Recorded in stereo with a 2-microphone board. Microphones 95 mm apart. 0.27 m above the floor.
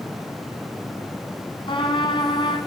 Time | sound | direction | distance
1.7 | a trumpet | 55° left (ahead or behind) | 7 m